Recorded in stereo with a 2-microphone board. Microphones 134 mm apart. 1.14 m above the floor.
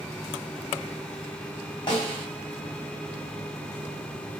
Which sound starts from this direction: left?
A snare drum, at 1.9 s.